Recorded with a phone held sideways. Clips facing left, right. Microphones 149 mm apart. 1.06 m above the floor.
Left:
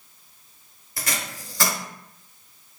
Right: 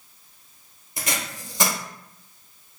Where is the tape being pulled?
20° right (ahead or behind), 1.0 m.